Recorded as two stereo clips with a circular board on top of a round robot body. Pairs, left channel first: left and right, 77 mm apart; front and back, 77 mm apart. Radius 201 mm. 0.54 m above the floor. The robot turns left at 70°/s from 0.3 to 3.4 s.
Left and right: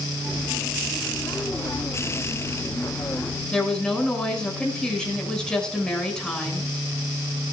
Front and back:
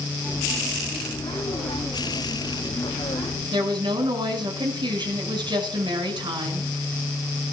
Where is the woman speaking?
170° left, 6.5 m.